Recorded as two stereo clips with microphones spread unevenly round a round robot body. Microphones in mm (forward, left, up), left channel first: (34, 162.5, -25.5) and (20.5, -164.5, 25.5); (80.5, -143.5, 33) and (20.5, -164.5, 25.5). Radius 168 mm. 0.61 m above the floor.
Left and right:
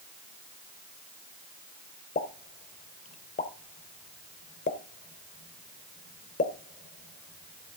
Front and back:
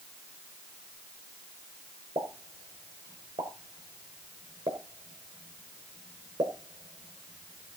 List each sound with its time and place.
2.1 s a pop: 155° left, 0.9 m